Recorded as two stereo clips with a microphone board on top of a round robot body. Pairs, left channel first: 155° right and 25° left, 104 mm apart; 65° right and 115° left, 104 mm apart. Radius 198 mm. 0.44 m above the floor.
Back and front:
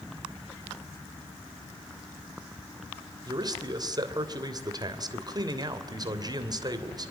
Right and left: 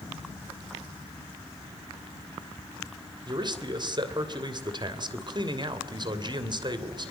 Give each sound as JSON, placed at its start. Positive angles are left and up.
{"t": 3.3, "sound": "a man speaking", "azimuth_deg": 70, "distance_m": 3.0}